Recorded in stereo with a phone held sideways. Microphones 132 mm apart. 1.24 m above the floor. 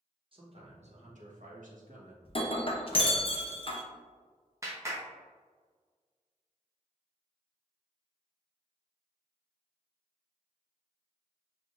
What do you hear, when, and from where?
0.3 s a man speaking: 40° right (ahead or behind), 1.2 m; by 2.1 s 85° right, 1.5 m
2.2 s breaking glass: 45° left (ahead or behind), 0.6 m
4.6 s a clap: 20° right (ahead or behind), 0.9 m